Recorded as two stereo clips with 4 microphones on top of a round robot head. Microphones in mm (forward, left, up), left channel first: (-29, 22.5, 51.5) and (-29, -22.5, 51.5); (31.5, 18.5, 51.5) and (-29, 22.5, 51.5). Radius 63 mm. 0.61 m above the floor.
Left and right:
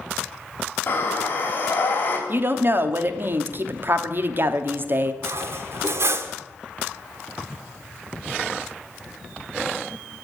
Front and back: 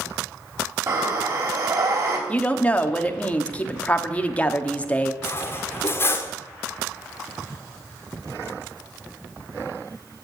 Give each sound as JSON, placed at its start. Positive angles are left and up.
{"t": 0.9, "sound": "breathing", "azimuth_deg": 140, "distance_m": 3.0}
{"t": 2.3, "sound": "a woman speaking", "azimuth_deg": -65, "distance_m": 1.0}
{"t": 5.2, "sound": "cutlery clinking", "azimuth_deg": -60, "distance_m": 0.9}